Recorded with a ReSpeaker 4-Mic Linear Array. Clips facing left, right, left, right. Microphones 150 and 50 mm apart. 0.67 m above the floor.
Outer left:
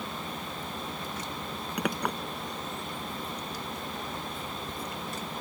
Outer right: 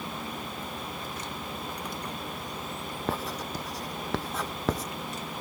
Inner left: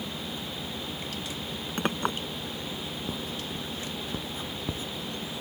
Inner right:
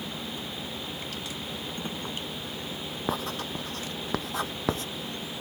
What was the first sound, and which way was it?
A clink, 80° left.